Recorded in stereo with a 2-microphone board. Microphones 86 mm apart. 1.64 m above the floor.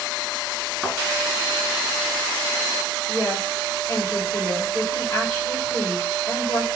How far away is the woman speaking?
About 4 m.